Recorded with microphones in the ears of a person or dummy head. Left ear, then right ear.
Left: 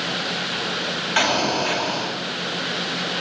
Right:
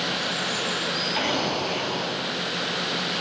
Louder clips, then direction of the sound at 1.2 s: Left 5 dB; 55° left (ahead or behind).